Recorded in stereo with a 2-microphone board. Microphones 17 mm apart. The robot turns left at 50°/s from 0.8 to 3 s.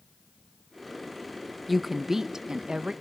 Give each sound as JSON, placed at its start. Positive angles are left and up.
{"t": 1.7, "sound": "a woman speaking", "azimuth_deg": -5, "distance_m": 0.6}